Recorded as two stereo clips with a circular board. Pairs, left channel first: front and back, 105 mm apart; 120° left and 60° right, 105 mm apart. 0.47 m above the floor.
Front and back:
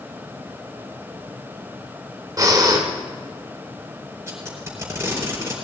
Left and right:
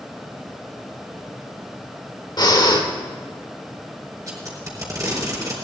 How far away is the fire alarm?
No fire alarm in this recording.